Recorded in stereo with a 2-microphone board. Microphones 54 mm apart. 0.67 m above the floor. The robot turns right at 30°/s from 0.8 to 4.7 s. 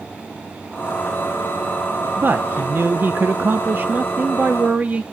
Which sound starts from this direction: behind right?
A man speaking, at 2.2 s.